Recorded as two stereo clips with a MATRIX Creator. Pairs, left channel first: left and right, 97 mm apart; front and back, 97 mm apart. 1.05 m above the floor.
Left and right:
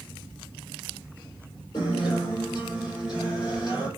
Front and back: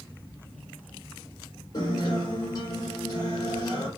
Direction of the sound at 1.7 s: 50° left.